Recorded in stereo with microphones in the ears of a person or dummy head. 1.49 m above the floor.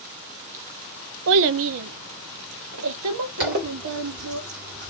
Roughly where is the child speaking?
Right.